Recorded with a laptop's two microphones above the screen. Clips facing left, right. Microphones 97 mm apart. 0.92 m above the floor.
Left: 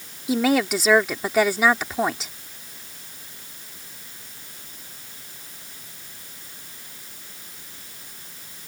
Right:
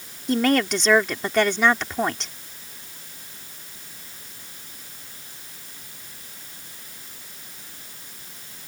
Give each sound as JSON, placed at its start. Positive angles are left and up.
{"t": 0.3, "sound": "a woman speaking", "side_deg": 5}